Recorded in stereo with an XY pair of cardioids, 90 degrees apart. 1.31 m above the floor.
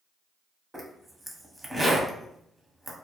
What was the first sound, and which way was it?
A zipper, 15° right.